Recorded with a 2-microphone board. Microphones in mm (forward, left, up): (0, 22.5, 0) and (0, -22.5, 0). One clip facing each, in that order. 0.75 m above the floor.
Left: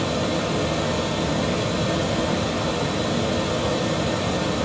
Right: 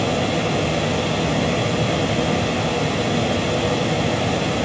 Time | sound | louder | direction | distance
0.0 | running water | right 3 dB | 55° right (ahead or behind) | 1.4 m